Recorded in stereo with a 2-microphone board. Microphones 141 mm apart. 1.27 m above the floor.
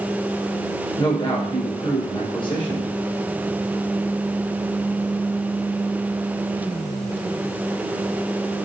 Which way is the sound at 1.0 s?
35° left (ahead or behind).